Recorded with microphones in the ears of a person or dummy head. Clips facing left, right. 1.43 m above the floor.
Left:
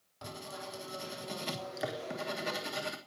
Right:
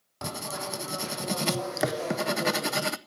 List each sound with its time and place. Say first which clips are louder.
0.2 s writing: right 9 dB; 60° right (ahead or behind), 0.6 m